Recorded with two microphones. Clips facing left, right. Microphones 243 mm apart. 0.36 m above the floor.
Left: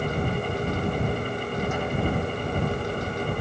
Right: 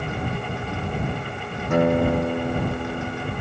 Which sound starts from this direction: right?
A guitar, at 1.7 s.